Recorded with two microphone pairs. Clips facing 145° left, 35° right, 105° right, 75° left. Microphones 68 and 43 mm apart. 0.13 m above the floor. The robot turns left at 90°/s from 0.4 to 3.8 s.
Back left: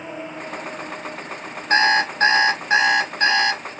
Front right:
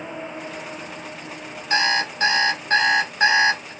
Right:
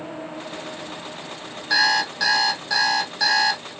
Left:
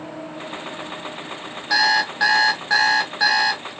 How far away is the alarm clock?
About 0.8 m.